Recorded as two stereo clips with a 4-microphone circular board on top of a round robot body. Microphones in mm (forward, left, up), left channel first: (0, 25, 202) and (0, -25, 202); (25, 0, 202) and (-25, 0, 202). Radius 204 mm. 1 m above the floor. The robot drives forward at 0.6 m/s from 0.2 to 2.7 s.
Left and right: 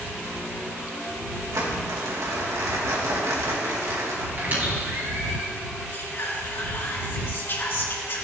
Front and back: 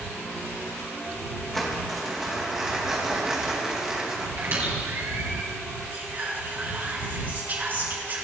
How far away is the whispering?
About 3 m.